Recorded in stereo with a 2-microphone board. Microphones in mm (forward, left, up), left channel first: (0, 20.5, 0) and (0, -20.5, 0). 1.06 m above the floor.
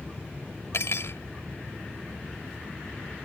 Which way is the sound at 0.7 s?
70° left (ahead or behind).